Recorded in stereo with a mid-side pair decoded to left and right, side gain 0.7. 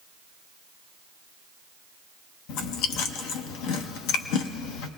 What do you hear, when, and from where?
2.5 s chewing: 70° left, 0.9 m